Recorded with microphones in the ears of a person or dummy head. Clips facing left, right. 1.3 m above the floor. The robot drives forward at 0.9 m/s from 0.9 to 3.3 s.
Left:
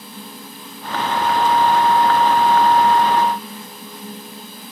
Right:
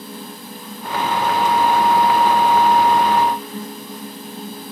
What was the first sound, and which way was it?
Only background noise.